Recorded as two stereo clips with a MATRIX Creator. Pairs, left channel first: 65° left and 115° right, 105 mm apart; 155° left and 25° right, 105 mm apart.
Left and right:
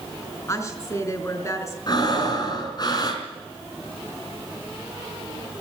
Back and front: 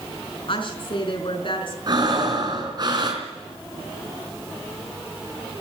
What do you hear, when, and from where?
0.5 s a woman speaking: 125° left, 4.5 m
1.9 s breathing: 20° left, 4 m